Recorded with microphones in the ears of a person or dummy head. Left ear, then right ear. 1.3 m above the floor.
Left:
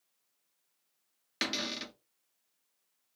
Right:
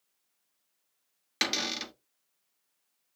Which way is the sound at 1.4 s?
15° right (ahead or behind).